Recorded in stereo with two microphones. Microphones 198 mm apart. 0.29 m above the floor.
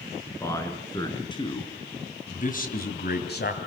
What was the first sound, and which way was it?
A man speaking, 15° left (ahead or behind).